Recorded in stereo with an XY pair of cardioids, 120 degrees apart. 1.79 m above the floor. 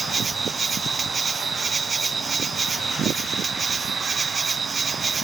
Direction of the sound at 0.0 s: 25° right.